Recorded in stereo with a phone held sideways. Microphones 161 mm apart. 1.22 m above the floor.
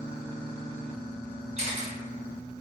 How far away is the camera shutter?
About 1.0 m.